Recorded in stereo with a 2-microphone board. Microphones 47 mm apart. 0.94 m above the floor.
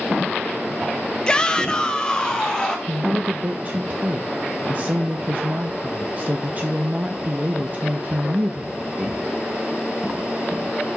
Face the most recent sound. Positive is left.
turn(degrees=-35)  # may be behind; listen again after turning